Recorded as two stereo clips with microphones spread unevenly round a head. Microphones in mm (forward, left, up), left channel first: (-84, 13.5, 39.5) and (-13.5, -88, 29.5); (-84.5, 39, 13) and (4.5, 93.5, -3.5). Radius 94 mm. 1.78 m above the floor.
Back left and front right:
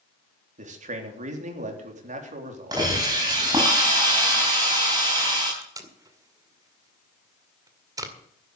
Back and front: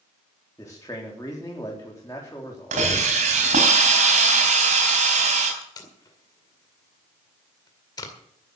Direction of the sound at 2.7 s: 15° left.